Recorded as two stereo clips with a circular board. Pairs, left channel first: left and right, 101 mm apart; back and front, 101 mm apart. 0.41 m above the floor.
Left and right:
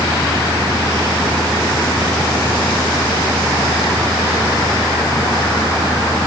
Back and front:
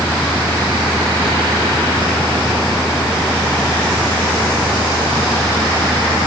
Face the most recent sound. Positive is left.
No sound to turn to.